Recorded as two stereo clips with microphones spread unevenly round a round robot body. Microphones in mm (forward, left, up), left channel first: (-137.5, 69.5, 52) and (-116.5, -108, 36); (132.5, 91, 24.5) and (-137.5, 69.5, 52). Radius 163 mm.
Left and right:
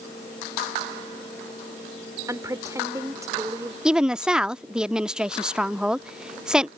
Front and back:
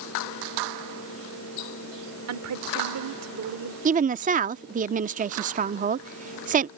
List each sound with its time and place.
2.3 s a woman speaking: 150° right
3.9 s a woman speaking: 150° right